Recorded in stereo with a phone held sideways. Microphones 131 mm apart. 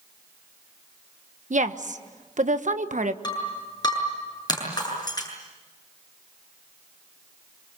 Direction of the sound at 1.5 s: 70° right (ahead or behind).